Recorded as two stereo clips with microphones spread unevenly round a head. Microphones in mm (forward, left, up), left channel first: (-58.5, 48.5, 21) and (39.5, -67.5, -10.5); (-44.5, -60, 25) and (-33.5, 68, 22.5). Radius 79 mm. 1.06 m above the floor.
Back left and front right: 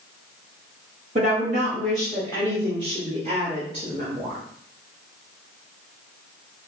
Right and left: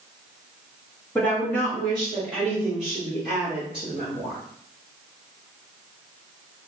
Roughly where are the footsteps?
No footsteps in this recording.